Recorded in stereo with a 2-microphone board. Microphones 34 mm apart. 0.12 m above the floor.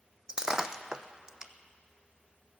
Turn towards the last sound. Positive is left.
turn(degrees=-25)  # may be behind; listen again after turning